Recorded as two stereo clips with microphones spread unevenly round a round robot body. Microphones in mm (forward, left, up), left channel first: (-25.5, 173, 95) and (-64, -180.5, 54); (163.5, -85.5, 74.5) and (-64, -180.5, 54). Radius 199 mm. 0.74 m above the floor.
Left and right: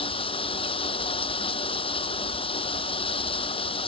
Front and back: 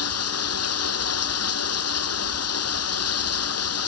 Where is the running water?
10° left.